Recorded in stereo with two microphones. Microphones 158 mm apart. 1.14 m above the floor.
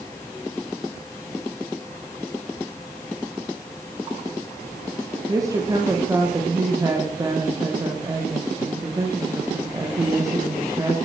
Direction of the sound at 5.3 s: 20° right (ahead or behind).